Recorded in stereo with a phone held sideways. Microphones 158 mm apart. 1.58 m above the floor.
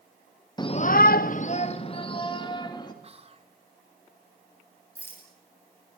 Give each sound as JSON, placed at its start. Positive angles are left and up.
{"t": 0.6, "sound": "a shout", "side_deg": 25, "distance_m": 0.8}
{"t": 3.0, "sound": "whispering", "side_deg": -40, "distance_m": 2.5}
{"t": 5.0, "sound": "a rattle", "side_deg": 15, "distance_m": 8.5}